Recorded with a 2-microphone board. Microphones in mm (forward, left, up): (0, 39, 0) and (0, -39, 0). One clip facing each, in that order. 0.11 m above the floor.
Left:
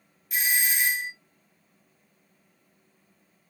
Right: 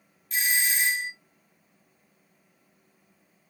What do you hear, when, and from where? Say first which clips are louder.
0.3 s a doorbell: even; 15° left (ahead or behind), 2.5 m